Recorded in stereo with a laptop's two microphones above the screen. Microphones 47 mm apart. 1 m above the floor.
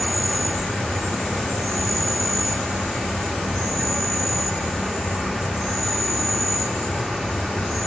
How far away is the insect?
About 1.0 m.